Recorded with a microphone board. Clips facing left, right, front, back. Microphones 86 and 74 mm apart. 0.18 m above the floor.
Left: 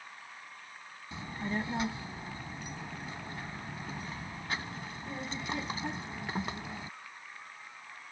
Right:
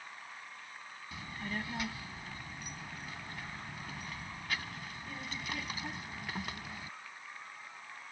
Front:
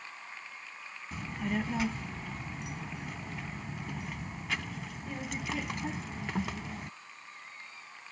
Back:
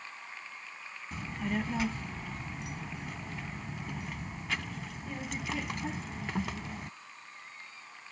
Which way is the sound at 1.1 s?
90° left.